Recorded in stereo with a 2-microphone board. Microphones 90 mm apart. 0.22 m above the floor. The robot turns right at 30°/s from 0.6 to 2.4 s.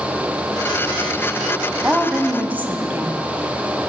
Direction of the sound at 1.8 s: 15° right (ahead or behind).